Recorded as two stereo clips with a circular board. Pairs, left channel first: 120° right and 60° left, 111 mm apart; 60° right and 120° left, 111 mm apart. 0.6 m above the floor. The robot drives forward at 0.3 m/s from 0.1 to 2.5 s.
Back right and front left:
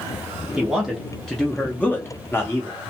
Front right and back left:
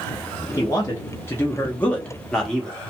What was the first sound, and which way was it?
A man speaking, 20° right.